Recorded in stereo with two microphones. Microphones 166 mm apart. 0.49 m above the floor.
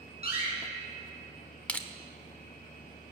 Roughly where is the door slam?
Left.